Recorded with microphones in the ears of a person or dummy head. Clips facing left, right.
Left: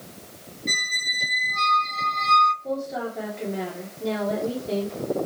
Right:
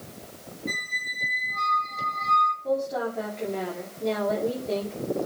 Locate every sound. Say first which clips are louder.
0.7 s a squeak: left 1 dB; 40° left (ahead or behind), 0.6 m
2.6 s a woman speaking: right 2 dB; 5° left (ahead or behind), 2.5 m